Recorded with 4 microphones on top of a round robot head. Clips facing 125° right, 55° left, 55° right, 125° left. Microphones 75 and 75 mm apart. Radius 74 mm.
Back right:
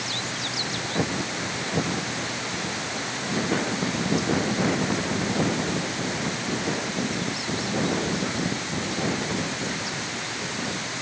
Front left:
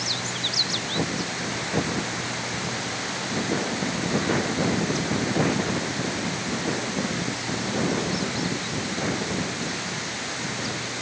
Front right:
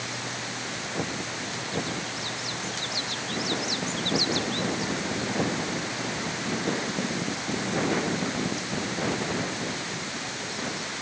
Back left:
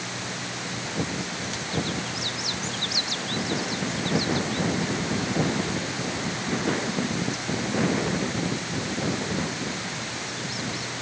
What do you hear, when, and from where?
Only background noise.